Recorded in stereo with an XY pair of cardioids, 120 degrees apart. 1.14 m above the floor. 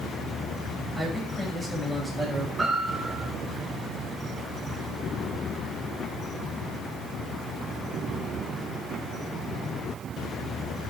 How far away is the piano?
About 6 m.